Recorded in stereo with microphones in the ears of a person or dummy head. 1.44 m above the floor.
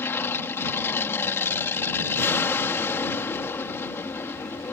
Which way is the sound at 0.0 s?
10° left (ahead or behind).